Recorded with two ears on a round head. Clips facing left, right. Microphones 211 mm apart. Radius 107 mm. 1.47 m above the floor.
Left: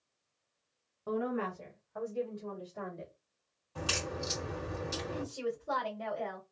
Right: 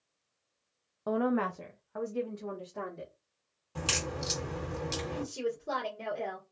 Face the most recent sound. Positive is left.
turn(degrees=-80)